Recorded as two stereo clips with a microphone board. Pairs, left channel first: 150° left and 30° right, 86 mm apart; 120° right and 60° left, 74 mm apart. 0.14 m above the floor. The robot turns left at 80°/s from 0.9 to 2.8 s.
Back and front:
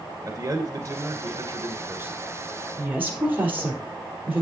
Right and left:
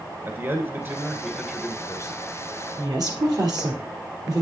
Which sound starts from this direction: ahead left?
A woman speaking, at 2.8 s.